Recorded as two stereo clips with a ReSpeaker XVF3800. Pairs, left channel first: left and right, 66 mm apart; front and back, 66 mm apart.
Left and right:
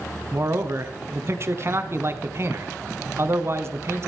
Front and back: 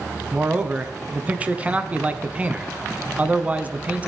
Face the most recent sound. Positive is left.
turn(degrees=-120)